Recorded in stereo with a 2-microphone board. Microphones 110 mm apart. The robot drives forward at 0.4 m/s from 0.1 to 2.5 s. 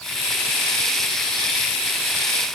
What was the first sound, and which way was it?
Only background noise.